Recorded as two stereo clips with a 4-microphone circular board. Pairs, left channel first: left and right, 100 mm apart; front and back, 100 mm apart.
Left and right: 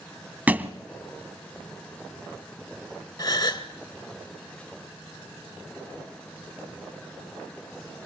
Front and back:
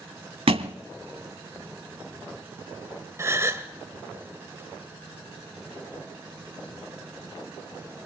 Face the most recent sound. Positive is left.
turn(degrees=125)